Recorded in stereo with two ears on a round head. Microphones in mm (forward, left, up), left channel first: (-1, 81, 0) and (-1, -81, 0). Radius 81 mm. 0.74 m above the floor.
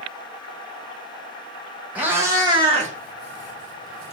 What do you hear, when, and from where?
1.9 s a cat meowing: 10° right (ahead or behind), 0.9 m; by 4.1 s 80° right, 0.8 m